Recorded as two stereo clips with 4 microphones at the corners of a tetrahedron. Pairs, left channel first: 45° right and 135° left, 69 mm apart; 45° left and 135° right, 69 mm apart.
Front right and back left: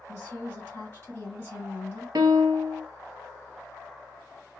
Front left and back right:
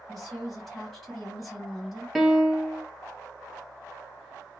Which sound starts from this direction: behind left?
A piano, at 2.1 s.